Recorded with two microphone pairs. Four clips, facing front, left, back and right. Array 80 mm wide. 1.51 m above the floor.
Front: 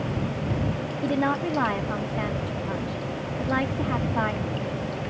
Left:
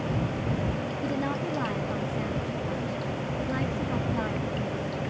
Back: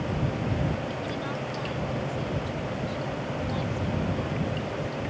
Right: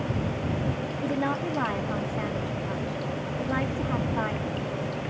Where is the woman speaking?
15° right.